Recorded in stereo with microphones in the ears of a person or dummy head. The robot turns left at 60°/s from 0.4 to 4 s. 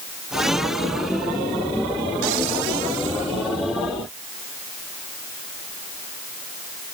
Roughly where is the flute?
No flute in this recording.